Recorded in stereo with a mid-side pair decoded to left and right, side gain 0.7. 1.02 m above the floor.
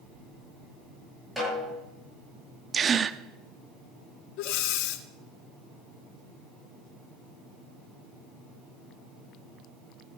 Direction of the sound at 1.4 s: Straight ahead.